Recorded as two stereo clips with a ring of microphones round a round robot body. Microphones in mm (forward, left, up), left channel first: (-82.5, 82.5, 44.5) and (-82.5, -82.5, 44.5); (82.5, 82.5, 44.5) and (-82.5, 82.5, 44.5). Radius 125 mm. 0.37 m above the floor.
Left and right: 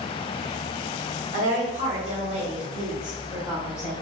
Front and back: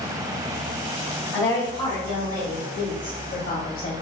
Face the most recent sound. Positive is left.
turn(degrees=-10)